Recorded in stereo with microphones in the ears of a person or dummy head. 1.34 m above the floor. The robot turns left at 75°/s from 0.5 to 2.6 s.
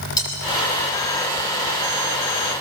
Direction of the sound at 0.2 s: 25° left (ahead or behind).